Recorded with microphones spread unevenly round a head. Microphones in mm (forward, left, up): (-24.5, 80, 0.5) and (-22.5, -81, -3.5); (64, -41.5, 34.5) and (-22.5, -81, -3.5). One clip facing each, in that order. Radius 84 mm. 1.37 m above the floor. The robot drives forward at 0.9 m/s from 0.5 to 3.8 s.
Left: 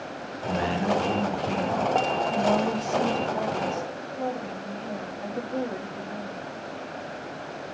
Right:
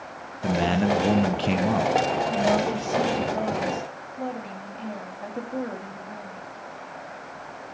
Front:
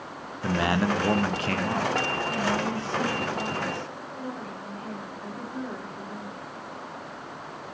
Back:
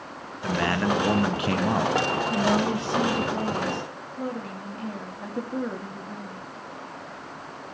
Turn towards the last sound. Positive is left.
turn(degrees=180)